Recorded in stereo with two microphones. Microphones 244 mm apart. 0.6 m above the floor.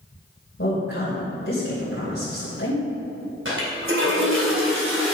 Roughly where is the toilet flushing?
Right.